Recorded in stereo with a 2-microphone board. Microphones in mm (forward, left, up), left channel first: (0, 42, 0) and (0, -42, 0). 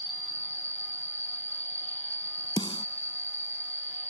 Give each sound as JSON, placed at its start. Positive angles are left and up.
{"t": 0.0, "sound": "an insect", "side_deg": 25}
{"t": 2.6, "sound": "a snare drum", "side_deg": 75}